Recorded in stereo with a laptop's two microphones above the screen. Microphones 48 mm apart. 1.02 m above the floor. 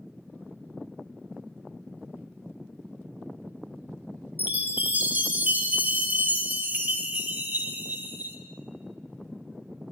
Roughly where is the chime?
Right.